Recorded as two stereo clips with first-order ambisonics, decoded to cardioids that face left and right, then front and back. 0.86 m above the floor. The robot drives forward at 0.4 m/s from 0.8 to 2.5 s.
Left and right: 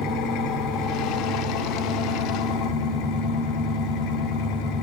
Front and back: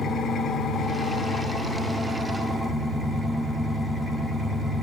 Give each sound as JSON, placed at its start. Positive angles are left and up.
{"t": 0.0, "sound": "an engine running", "azimuth_deg": 65, "distance_m": 1.3}